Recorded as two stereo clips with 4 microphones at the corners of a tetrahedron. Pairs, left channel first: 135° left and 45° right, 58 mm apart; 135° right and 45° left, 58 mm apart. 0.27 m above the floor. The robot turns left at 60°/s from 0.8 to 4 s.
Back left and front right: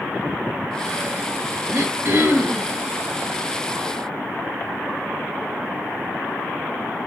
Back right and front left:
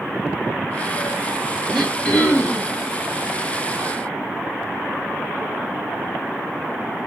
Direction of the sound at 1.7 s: 45° right.